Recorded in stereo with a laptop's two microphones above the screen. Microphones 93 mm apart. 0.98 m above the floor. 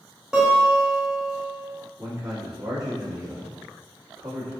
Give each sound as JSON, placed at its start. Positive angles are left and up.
{"t": 0.3, "sound": "a guitar", "side_deg": -5, "distance_m": 1.2}
{"t": 2.0, "sound": "a man speaking", "side_deg": -35, "distance_m": 1.9}